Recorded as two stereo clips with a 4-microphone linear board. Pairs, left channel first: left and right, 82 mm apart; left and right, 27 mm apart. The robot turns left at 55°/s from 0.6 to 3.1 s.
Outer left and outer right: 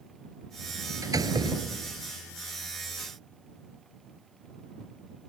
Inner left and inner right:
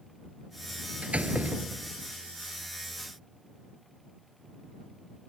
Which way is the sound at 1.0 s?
45° right.